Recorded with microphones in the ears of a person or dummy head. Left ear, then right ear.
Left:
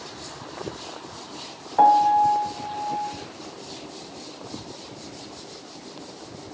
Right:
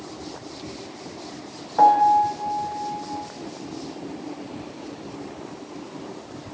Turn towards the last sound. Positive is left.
turn(degrees=5)  # may be behind; listen again after turning